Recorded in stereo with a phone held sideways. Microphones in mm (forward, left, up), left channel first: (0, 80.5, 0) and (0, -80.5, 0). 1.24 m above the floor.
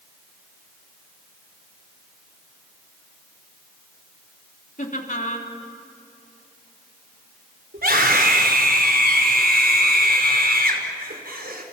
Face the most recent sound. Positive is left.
turn(degrees=-75)  # may be behind; listen again after turning